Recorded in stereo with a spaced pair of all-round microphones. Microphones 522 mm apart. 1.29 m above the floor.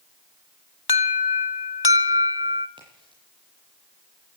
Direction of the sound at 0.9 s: 45° left (ahead or behind).